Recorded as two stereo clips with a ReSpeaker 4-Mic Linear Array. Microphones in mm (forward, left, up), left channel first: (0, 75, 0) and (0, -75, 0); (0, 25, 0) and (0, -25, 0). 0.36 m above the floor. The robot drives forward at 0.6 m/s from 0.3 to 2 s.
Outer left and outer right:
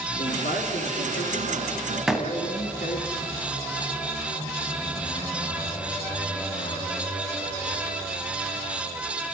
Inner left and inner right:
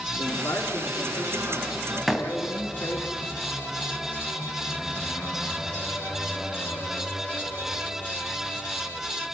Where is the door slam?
5° right (ahead or behind), 2 m.